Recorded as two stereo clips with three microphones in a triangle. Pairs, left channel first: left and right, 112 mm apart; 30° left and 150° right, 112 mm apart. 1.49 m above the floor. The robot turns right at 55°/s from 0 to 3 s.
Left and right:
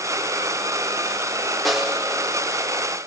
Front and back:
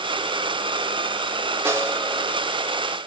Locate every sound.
1.6 s a snare drum: 175° left, 0.6 m; by 2.0 s 165° right, 0.6 m